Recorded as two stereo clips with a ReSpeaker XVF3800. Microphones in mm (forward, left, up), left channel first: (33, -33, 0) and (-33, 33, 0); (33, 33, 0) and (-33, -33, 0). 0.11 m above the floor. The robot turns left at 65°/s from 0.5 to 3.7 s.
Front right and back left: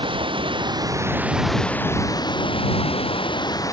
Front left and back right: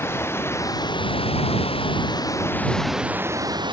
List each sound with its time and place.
0.0 s running water: 110° left; by 3.7 s 100° right